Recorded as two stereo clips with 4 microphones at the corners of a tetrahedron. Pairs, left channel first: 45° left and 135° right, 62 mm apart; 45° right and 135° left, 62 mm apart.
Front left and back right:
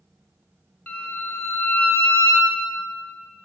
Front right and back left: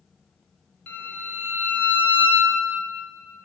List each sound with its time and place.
0.9 s a violin: 15° right, 1.3 m